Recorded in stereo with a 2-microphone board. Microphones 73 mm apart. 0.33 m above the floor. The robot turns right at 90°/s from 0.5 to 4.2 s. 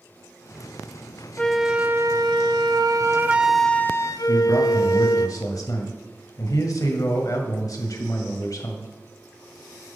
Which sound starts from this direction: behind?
A flute, at 1.4 s.